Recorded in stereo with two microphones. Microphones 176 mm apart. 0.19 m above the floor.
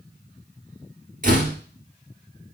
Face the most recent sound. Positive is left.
turn(degrees=-50)  # may be behind; listen again after turning